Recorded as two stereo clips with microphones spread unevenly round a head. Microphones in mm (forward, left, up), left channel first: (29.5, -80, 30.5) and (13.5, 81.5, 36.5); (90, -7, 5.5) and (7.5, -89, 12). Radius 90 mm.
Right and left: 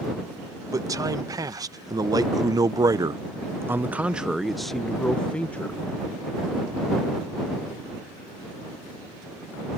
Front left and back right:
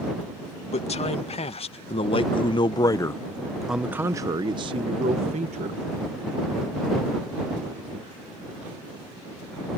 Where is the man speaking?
25° left; by 5.8 s 165° right.